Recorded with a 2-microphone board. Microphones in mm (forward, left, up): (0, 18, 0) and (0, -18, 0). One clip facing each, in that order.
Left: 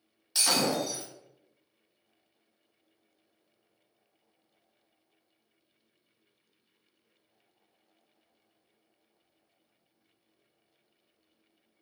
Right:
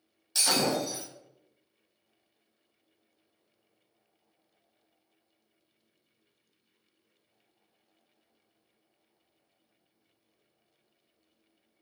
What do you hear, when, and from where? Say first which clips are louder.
0.3 s breaking glass: even; 5° left (ahead or behind), 1.1 m